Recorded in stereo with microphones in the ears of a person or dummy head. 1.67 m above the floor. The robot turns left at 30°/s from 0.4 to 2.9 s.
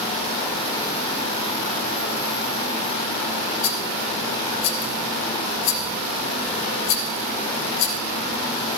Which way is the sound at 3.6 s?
70° left (ahead or behind).